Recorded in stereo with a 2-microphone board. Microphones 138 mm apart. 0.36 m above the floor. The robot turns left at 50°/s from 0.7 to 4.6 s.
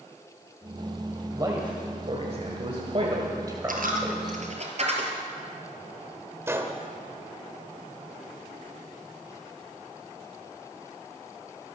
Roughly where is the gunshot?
Centre.